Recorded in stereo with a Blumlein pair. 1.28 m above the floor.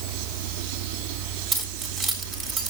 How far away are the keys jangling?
About 3.5 m.